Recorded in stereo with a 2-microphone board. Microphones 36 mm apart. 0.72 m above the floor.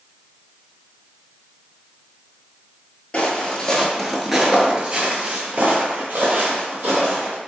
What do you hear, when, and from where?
3.1 s footsteps: 35° left (ahead or behind), 0.9 m; by 7.4 s 60° right (ahead or behind), 1.8 m